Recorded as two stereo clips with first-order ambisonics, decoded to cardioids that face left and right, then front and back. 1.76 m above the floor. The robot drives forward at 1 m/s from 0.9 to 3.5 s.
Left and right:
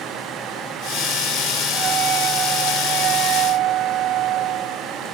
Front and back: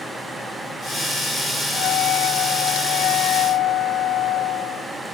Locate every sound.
1.7 s a flute: 35° right; by 4.9 s 45° right